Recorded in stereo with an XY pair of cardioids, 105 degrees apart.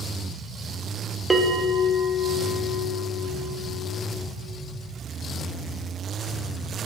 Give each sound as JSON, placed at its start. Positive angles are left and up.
{"t": 1.3, "sound": "a bell", "azimuth_deg": -15, "distance_m": 1.0}